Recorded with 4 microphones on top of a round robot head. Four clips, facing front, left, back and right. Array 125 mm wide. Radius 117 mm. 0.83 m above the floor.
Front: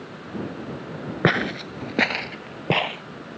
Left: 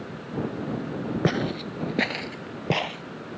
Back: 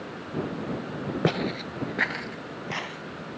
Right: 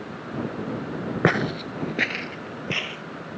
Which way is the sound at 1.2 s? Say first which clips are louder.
Right 5 dB, front 5 dB; 45° right.